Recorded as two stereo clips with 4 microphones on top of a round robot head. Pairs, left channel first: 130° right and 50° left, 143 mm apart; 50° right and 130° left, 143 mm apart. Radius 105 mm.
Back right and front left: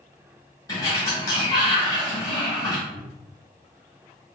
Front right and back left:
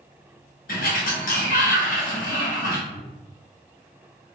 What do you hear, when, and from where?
0.7 s a sliding door: 65° right, 0.8 m
2.9 s a cupboard door: 150° right, 1.2 m